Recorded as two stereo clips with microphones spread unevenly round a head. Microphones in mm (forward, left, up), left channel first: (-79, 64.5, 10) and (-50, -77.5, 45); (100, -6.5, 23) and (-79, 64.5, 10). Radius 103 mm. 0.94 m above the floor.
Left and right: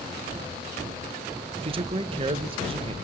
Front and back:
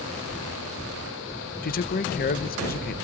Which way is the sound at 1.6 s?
25° right.